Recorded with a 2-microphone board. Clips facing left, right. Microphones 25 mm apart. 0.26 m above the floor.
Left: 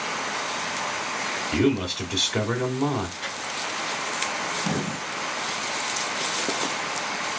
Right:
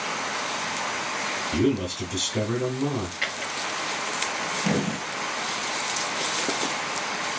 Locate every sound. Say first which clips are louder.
1.5 s a man speaking: left 2 dB; 40° left (ahead or behind), 1.8 m
3.2 s a drawer: right 2 dB; 80° right, 2.5 m